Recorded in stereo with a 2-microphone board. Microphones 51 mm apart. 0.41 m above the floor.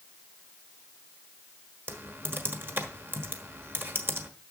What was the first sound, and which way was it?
Typing on a keyboard, 45° right (ahead or behind).